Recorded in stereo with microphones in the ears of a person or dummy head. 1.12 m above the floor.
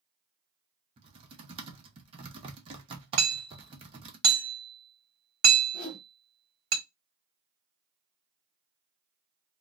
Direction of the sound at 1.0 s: 30° right (ahead or behind).